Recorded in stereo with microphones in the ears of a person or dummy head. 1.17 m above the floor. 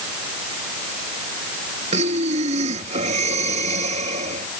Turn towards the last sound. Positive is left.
turn(degrees=-30)  # may be behind; listen again after turning